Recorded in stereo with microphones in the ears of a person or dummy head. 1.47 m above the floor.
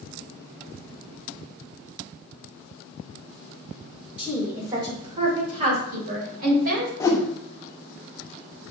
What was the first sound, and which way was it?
A woman speaking, 10° right (ahead or behind).